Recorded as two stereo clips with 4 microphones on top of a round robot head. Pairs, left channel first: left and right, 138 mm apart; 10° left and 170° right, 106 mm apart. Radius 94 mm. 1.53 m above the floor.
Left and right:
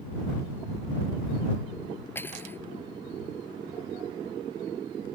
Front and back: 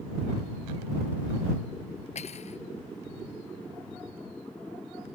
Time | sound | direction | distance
2.1 | cutlery clinking | 15° left | ?